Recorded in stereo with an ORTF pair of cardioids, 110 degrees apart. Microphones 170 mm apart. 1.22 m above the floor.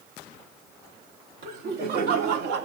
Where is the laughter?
60° right, 3 m; by 2.7 s 70° right, 2.5 m.